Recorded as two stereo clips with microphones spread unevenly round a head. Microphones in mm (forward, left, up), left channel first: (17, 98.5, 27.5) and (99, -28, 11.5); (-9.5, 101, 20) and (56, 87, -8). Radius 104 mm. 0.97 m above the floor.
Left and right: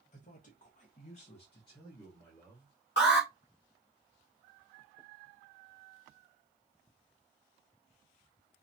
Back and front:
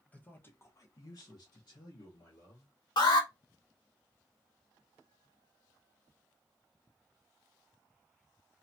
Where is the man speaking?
85° left, 1.0 m; by 2.7 s 150° right, 1.3 m.